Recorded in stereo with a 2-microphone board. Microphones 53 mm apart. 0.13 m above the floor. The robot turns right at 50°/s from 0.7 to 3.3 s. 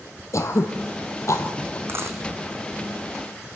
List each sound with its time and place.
0.3 s throat clearing: 70° left (ahead or behind), 2.0 m; by 1.8 s 45° left (ahead or behind), 2.0 m
1.9 s a dropped coin: 50° right (ahead or behind), 2 m; by 2.2 s 65° right (ahead or behind), 2 m